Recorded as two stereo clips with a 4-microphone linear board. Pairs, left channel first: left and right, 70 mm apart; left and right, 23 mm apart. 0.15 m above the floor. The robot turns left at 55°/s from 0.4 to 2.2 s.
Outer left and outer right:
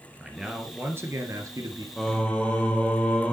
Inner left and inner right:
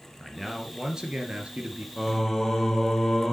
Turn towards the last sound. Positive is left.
turn(degrees=15)  # may be behind; listen again after turning